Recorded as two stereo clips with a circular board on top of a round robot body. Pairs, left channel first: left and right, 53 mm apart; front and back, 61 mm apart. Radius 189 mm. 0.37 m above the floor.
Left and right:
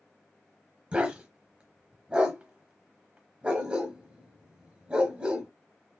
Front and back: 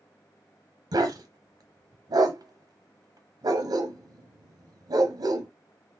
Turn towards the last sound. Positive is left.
turn(degrees=-160)